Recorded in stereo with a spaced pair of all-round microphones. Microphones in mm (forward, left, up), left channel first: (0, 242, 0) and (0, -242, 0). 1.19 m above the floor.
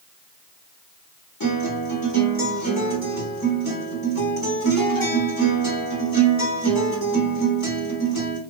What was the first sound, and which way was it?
A guitar, 45° left (ahead or behind).